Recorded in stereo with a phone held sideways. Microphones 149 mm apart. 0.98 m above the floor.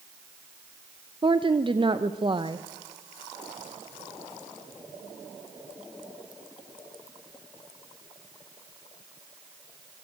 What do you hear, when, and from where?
1.2 s a woman speaking: 35° right (ahead or behind), 0.7 m